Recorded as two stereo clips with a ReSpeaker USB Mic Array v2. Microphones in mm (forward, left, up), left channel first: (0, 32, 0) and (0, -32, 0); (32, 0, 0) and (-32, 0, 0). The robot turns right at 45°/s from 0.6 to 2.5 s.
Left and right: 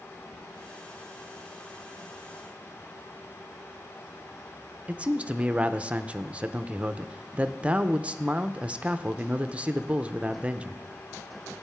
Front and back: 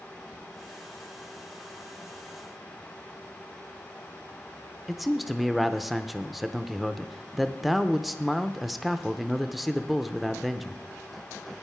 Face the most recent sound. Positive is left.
turn(degrees=-95)